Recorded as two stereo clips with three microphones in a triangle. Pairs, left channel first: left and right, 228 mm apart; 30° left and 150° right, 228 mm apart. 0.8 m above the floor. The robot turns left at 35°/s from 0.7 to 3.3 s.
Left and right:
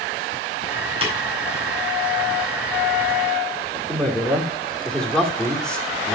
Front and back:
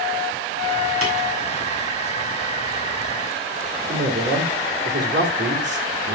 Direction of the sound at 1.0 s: 155° right.